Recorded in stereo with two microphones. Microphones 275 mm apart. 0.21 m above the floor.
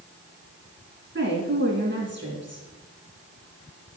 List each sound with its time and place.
1.1 s a woman speaking: 45° right (ahead or behind), 2.5 m